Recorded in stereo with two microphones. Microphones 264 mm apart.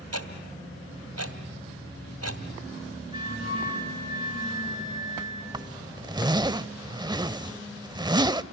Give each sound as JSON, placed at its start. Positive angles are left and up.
{"t": 0.1, "sound": "ticking", "side_deg": -70, "distance_m": 2.5}
{"t": 3.1, "sound": "a flute", "side_deg": -20, "distance_m": 9.0}
{"t": 5.5, "sound": "a zipper", "side_deg": -15, "distance_m": 0.6}